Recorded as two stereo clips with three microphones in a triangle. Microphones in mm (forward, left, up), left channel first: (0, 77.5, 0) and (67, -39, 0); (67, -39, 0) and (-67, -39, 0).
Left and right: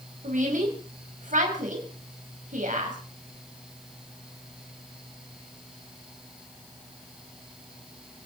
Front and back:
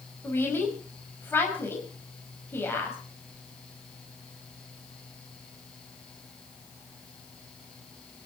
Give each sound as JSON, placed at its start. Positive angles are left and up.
{"t": 0.2, "sound": "a woman speaking", "azimuth_deg": -75, "distance_m": 5.0}